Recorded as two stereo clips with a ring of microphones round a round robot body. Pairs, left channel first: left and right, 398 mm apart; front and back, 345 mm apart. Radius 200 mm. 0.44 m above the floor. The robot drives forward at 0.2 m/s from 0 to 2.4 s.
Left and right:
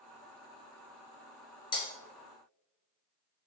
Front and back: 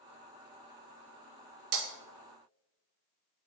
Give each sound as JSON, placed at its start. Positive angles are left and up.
{"t": 1.7, "sound": "breaking glass", "azimuth_deg": 170, "distance_m": 0.7}